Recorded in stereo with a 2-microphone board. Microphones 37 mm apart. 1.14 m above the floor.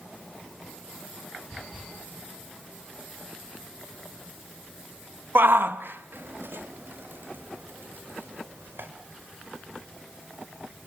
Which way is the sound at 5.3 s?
70° right (ahead or behind).